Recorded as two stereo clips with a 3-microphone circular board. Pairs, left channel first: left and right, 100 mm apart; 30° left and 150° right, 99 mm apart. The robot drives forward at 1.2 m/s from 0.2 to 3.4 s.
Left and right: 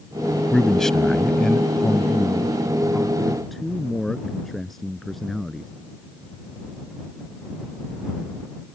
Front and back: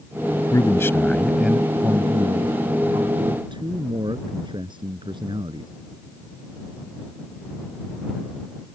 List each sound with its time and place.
0.5 s a man speaking: 5° left; by 5.7 s straight behind